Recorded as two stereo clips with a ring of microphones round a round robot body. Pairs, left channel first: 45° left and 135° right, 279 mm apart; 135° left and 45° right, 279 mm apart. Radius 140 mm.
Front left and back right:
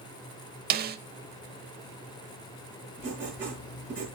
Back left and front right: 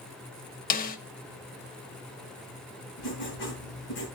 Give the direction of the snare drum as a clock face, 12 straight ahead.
6 o'clock.